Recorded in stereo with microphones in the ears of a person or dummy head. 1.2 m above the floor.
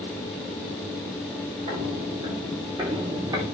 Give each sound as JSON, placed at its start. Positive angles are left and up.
{"t": 1.7, "sound": "footsteps", "side_deg": -30, "distance_m": 4.5}